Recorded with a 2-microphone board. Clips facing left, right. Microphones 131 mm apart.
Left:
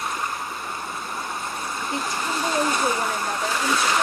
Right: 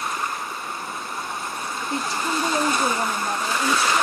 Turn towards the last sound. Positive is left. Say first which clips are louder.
# right 2 dB
turn(degrees=-30)  # may be behind; listen again after turning